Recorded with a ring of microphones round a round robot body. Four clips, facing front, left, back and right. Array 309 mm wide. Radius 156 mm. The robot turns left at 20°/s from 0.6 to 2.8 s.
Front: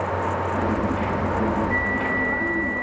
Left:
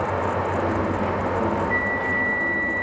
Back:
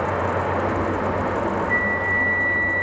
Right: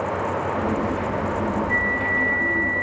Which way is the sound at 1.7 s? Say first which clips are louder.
Even, back 1 dB; 155° right.